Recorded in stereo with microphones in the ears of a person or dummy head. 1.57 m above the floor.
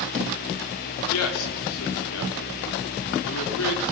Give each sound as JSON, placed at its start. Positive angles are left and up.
{"t": 1.1, "sound": "a man speaking", "side_deg": 85, "distance_m": 3.5}